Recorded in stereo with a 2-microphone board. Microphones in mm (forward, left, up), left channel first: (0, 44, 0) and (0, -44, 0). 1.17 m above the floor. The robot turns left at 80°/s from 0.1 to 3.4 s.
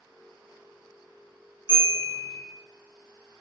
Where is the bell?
80° left, 2.0 m; by 2.4 s 25° left, 2.0 m.